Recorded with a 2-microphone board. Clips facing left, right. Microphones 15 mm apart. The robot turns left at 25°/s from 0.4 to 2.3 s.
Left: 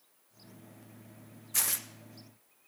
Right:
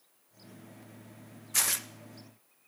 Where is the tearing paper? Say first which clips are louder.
Right 4 dB; 15° right (ahead or behind), 0.5 m.